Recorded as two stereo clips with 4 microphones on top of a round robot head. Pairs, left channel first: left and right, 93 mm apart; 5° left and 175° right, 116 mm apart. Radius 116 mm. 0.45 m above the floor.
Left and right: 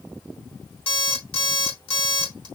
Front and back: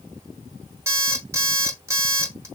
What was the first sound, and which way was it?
An alarm clock, 120° left.